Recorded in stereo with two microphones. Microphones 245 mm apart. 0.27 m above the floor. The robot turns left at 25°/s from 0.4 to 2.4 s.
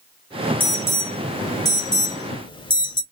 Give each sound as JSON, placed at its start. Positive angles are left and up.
{"t": 0.6, "sound": "an alarm", "side_deg": 10, "distance_m": 1.3}